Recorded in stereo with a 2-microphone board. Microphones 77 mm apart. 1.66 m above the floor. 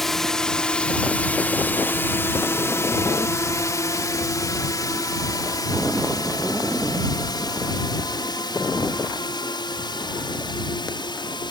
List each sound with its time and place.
0.0 s a drone: 5° left (ahead or behind); by 11.5 s 70° left (ahead or behind)